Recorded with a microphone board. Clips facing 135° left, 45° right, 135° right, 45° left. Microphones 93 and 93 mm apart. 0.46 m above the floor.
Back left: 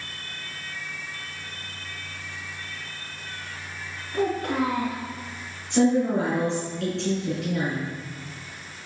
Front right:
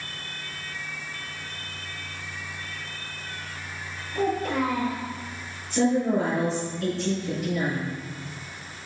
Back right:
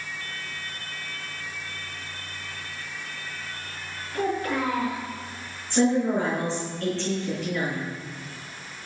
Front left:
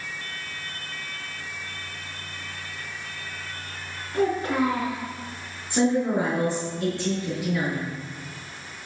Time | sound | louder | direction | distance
4.1 | a child speaking | back left 1 dB, front left 3 dB | 110° left | 5.5 m
5.7 | a woman speaking | back left 2 dB, even | 120° left | 4.5 m